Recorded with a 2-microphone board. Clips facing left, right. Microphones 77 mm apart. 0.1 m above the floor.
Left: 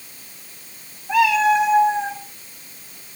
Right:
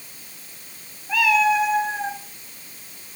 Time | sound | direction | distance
1.1 | a cat meowing | 30° left (ahead or behind) | 4 m